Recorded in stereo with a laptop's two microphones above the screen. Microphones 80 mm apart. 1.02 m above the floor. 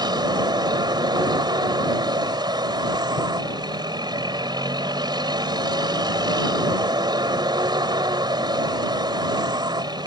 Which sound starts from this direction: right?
A vehicle, at 0.0 s.